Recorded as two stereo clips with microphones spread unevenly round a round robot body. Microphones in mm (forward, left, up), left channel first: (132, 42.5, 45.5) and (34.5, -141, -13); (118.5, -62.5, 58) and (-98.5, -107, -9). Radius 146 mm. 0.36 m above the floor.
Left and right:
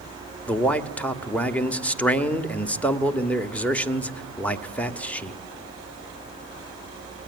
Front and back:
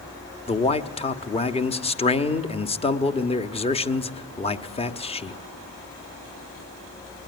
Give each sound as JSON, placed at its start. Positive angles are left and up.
{"t": 0.5, "sound": "a man speaking", "azimuth_deg": -60, "distance_m": 1.4}